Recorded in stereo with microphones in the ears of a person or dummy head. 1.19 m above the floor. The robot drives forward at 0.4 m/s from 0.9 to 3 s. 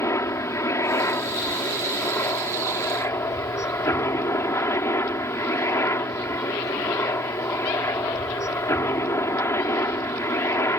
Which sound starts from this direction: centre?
A helicopter, at 0.0 s.